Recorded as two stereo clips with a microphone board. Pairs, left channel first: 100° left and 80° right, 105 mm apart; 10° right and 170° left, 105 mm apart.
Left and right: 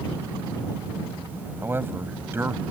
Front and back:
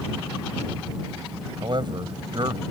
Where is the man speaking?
150° right.